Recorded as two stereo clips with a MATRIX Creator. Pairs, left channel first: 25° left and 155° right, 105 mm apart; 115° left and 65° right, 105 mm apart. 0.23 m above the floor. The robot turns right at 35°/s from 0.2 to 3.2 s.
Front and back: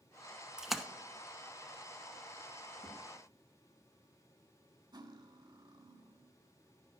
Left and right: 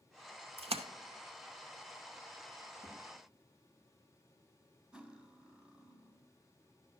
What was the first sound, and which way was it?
A splash, 75° right.